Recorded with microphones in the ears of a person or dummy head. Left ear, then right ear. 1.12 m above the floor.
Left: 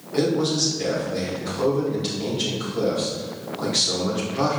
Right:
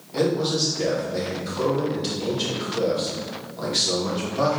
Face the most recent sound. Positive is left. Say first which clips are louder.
# left 1 dB
turn(degrees=-5)  # may be behind; listen again after turning